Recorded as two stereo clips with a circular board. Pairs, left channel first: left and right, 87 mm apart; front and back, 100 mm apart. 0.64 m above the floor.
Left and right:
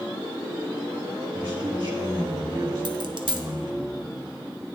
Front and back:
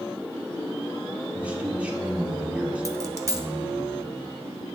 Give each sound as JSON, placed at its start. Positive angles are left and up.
{"t": 1.3, "sound": "a man speaking", "azimuth_deg": -105, "distance_m": 1.6}
{"t": 2.9, "sound": "a dropped coin", "azimuth_deg": -120, "distance_m": 0.9}